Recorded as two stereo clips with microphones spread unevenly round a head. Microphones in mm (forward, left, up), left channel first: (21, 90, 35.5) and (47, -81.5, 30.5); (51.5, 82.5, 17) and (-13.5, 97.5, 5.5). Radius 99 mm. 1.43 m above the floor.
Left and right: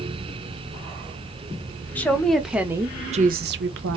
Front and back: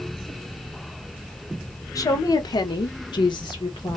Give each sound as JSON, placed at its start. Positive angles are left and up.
{"t": 1.9, "sound": "a woman speaking", "azimuth_deg": 15, "distance_m": 1.3}